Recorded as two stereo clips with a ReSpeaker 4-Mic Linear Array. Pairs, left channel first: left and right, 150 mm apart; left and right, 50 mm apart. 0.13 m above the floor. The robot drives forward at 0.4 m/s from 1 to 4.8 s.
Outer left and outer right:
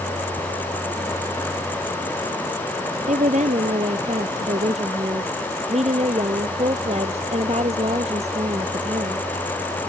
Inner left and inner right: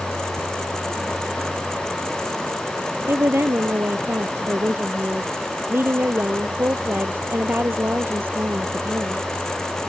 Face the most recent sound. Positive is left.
turn(degrees=-50)  # may be behind; listen again after turning